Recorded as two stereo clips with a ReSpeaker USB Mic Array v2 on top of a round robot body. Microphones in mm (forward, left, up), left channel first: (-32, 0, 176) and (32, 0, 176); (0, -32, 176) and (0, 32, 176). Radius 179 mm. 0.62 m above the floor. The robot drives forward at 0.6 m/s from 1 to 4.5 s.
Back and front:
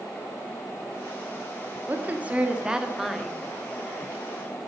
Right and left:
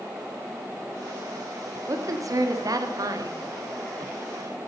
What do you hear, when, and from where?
1.9 s a woman speaking: 60° left, 1.8 m; by 3.4 s 95° left, 1.7 m